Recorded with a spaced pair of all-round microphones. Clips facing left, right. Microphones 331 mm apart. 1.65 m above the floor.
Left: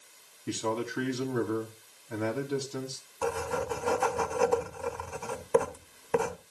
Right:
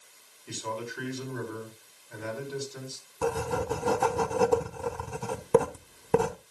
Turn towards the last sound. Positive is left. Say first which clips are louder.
# right 2 dB
turn(degrees=-50)  # may be behind; listen again after turning